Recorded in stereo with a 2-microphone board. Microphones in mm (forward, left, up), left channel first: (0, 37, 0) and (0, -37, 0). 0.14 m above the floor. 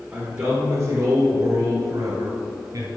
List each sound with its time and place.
0.1 s a man speaking: 15° right (ahead or behind), 1.7 m; by 2.9 s 50° right (ahead or behind), 2 m